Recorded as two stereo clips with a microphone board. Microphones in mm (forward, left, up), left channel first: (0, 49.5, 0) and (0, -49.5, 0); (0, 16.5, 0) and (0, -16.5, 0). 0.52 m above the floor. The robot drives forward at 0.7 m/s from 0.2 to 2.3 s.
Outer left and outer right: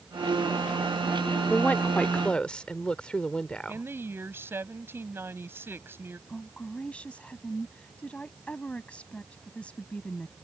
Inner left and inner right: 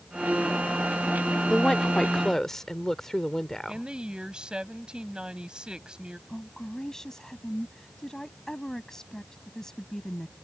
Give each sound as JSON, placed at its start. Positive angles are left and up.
{"t": 1.5, "sound": "a woman speaking", "side_deg": 15}
{"t": 3.7, "sound": "a woman speaking", "side_deg": -25}
{"t": 6.3, "sound": "a woman speaking", "side_deg": 10}